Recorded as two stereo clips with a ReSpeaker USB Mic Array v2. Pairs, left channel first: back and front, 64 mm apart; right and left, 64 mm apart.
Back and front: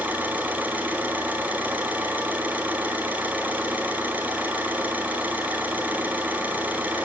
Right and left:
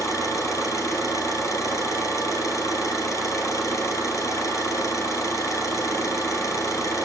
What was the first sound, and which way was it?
An engine running, 60° right.